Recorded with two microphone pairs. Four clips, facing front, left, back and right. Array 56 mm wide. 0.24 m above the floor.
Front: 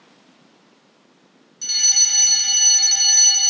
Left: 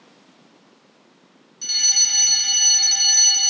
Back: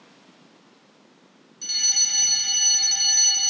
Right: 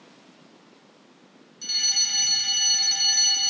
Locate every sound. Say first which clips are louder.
1.6 s a fire alarm: left 3 dB, front 4 dB; 35° left